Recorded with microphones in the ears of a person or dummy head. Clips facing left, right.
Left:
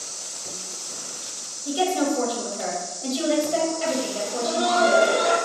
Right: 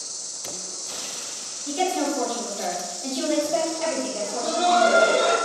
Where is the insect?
50° right (ahead or behind), 0.8 m.